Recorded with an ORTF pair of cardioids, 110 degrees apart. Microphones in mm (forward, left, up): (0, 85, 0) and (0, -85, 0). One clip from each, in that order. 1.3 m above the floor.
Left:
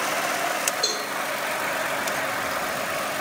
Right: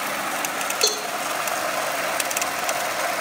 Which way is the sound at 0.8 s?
35° right.